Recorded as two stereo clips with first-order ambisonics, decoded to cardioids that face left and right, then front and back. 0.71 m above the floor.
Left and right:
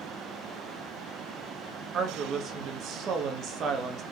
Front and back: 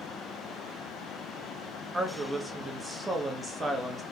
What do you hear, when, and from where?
1.9 s a woman speaking: 105° right, 0.6 m